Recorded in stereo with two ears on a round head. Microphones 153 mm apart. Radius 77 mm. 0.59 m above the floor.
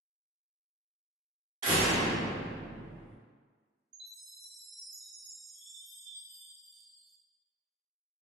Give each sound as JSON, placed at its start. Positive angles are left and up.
{"t": 1.6, "sound": "a door slam", "side_deg": -45, "distance_m": 1.1}
{"t": 3.9, "sound": "a chime", "side_deg": -40, "distance_m": 1.1}